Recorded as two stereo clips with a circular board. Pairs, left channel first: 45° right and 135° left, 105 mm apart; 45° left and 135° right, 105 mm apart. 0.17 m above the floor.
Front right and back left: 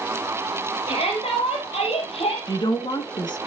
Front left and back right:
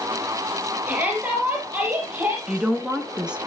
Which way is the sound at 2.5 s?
55° right.